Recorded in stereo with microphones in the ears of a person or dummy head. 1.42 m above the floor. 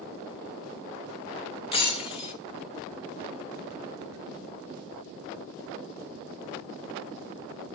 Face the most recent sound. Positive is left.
turn(degrees=30)  # may be behind; listen again after turning